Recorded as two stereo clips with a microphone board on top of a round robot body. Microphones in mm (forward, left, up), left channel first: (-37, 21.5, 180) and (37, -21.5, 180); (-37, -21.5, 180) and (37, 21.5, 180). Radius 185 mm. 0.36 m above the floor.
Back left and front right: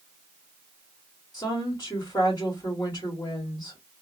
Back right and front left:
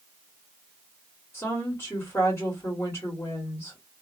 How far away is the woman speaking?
About 1.7 m.